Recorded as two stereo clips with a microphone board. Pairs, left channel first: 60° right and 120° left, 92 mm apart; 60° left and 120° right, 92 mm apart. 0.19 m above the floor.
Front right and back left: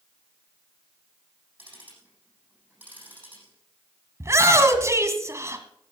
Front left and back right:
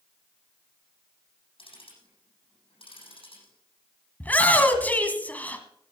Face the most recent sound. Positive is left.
turn(degrees=115)